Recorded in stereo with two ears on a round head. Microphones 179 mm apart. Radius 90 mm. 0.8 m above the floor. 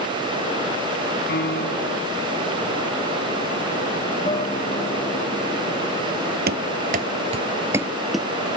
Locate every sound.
1.3 s a piano: 55° left (ahead or behind)
4.2 s a guitar: 30° left (ahead or behind)
6.5 s running footsteps: 50° right (ahead or behind); by 8.3 s centre (ahead or behind)